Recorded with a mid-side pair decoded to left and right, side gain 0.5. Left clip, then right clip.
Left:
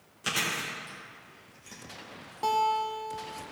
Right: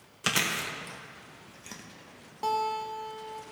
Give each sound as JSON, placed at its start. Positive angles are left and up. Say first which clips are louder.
{"t": 0.2, "sound": "chewing", "louder": "right 2 dB", "azimuth_deg": -50, "distance_m": 1.5}
{"t": 2.4, "sound": "a guitar", "louder": "left 3 dB", "azimuth_deg": 5, "distance_m": 1.5}